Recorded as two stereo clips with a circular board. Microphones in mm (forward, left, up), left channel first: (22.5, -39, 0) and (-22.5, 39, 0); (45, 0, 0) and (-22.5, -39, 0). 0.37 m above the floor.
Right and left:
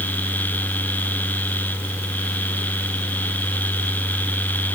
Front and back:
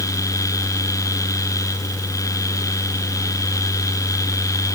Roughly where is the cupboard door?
No cupboard door in this recording.